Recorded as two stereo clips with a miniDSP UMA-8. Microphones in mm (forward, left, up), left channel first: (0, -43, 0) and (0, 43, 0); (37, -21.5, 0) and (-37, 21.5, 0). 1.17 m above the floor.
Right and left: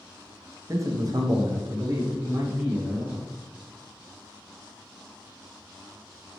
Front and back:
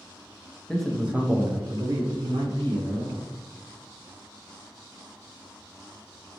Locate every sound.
0.7 s a man speaking: 45° left, 0.5 m; by 3.2 s 140° left, 1.3 m